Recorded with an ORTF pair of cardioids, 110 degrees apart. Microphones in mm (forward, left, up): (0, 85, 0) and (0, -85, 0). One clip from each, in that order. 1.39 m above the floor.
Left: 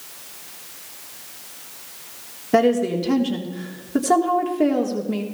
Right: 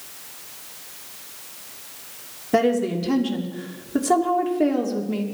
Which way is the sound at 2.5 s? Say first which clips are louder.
Left 2 dB; 5° left.